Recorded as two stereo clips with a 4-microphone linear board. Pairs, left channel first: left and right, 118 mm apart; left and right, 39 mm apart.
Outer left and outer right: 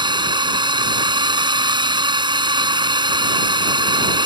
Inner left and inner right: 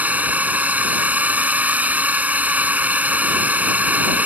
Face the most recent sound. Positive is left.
turn(degrees=-40)  # may be behind; listen again after turning